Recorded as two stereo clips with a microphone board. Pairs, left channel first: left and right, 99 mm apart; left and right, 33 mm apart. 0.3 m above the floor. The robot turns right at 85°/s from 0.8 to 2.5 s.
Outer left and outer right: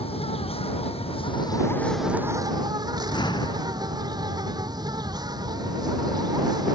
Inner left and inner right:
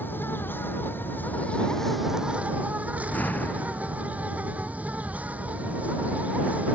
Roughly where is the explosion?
Left.